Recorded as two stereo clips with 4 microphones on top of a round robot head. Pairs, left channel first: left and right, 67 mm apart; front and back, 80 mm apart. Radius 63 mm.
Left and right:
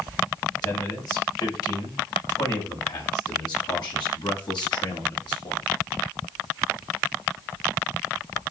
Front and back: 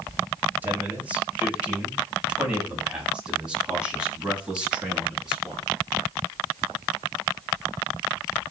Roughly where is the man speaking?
Left.